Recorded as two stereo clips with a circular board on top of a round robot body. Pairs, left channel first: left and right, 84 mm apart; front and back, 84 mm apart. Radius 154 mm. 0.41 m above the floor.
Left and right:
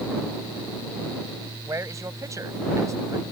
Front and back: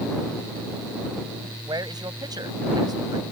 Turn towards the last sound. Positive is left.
turn(degrees=-145)